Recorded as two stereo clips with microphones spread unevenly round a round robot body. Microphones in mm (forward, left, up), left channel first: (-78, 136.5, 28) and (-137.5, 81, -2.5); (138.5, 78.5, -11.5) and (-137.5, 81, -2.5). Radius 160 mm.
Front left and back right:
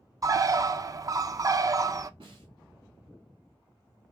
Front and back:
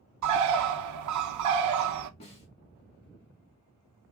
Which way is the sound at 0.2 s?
160° left.